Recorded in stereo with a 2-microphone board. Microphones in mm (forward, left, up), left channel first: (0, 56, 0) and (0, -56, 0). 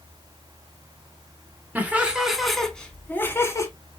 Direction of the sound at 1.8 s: 15° right (ahead or behind).